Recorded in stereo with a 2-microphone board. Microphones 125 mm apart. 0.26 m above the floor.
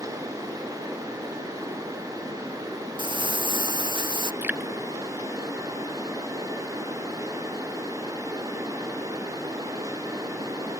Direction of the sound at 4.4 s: 15° right (ahead or behind).